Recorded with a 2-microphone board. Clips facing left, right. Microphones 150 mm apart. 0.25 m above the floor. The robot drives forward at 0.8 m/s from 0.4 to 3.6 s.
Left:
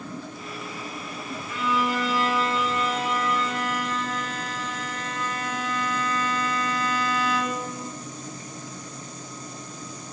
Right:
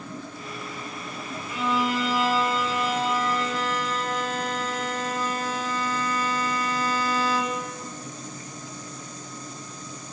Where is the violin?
25° right (ahead or behind), 3.5 m; by 7.7 s 35° right (ahead or behind), 2.5 m.